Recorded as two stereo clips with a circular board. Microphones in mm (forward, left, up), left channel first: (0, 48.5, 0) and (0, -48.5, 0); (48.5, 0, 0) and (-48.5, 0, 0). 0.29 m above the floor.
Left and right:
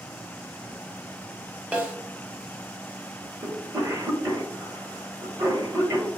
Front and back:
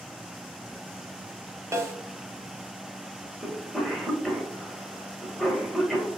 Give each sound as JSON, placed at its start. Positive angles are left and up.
{"t": 1.7, "sound": "a snare drum", "azimuth_deg": -155, "distance_m": 0.8}
{"t": 3.4, "sound": "a cough", "azimuth_deg": -85, "distance_m": 1.0}